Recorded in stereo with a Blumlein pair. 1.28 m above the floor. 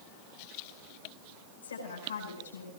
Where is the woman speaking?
70° left, 9.5 m; by 2.7 s 65° left, 10 m.